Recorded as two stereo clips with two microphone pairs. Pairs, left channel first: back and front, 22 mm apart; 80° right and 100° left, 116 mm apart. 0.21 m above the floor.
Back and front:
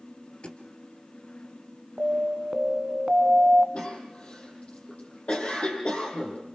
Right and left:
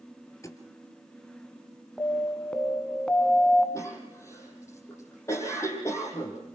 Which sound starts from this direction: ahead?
An alarm, at 2.0 s.